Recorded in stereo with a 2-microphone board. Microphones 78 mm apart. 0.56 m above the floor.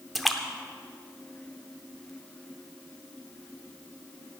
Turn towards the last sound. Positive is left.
turn(degrees=0)  # may be behind; listen again after turning